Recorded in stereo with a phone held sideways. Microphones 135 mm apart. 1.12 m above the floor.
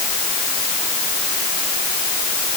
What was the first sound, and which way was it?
Only background noise.